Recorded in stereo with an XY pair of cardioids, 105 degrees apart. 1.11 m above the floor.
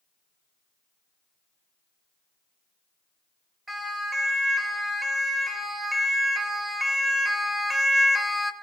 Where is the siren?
15° right, 6.5 m; by 8.5 s 10° left, 1.8 m.